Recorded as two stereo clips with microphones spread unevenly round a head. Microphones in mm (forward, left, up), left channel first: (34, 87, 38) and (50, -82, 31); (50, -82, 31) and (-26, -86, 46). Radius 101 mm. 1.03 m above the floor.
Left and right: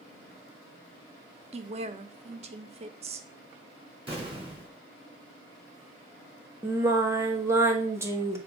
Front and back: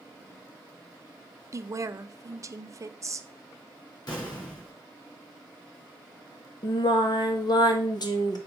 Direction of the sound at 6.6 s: 10° right.